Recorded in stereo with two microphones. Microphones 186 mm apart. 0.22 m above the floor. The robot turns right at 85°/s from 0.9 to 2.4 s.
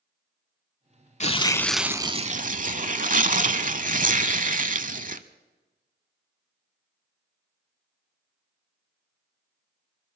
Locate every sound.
1.2 s tearing paper: 135° left, 0.6 m; by 5.2 s 125° right, 0.6 m